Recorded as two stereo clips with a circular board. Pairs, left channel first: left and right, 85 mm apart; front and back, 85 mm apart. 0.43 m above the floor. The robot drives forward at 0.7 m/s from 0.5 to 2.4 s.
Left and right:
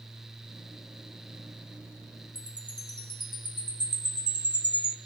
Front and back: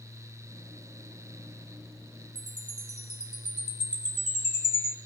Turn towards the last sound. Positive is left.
turn(degrees=105)